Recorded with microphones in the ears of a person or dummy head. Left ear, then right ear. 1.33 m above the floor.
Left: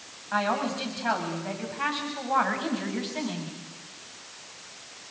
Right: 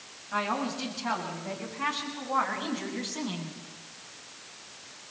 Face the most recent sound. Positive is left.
turn(degrees=15)  # may be behind; listen again after turning